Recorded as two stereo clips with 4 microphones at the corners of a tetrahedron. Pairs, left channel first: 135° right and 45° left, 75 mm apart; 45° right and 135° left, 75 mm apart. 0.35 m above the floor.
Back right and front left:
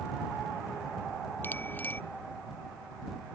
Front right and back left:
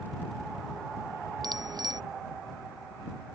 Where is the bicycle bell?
160° left.